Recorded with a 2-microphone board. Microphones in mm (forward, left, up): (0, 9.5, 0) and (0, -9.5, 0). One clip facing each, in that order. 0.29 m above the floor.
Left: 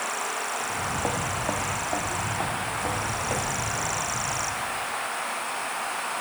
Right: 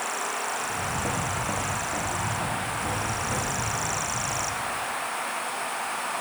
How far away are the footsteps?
About 1.2 m.